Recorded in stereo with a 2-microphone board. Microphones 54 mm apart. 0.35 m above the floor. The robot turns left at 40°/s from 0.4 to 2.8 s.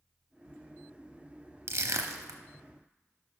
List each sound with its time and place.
1.7 s crushing: 55° right (ahead or behind), 0.5 m; by 2.4 s 80° right, 0.5 m